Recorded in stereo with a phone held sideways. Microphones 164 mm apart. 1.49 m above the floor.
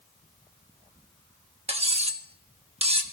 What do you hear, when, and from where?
1.7 s cutlery clinking: 40° right (ahead or behind), 1.1 m